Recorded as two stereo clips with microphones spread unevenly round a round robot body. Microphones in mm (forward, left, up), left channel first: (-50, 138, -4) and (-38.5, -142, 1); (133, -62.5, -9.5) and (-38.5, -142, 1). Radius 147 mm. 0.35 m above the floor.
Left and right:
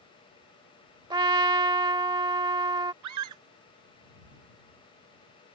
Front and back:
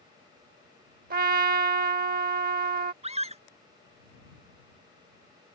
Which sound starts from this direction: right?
A scream, at 3.0 s.